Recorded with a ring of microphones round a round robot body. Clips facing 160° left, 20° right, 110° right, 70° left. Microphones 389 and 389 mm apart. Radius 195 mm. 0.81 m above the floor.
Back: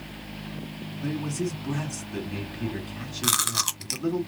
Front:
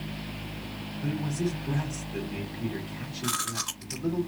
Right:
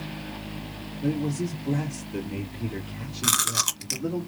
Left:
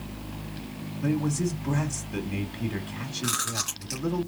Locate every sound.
1.0 s a man speaking: 130° left, 2 m
3.2 s chewing: 170° right, 1.4 m